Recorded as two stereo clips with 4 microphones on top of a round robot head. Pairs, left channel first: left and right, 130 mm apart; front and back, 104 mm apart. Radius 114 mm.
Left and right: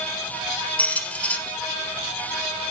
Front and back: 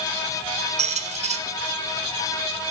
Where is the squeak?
170° left, 1.2 m.